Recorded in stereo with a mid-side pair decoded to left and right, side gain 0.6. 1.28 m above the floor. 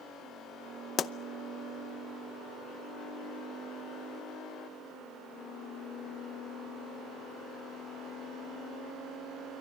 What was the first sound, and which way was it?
A pop, 40° left.